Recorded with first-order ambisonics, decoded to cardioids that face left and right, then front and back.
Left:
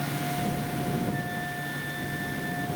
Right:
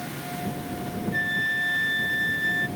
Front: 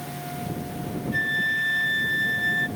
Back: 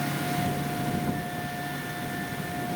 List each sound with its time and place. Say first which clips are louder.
1.1 s a flute: right 8 dB, front 10 dB; 40° right